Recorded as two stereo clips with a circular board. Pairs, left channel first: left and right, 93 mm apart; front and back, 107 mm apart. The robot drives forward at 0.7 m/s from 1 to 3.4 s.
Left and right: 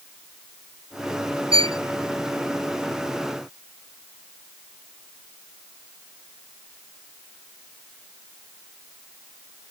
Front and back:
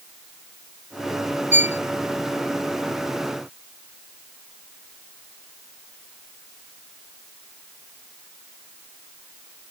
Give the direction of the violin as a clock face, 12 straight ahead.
4 o'clock.